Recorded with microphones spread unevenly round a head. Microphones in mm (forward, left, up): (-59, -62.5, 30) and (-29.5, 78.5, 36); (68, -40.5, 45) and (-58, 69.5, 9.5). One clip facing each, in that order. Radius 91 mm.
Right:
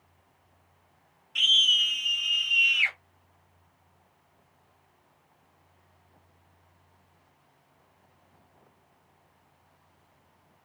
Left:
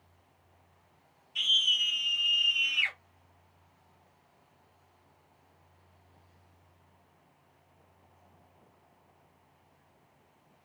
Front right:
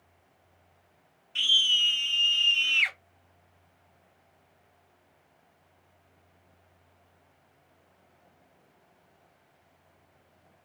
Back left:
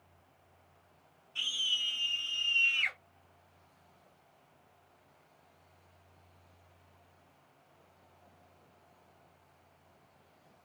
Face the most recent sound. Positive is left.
turn(degrees=-25)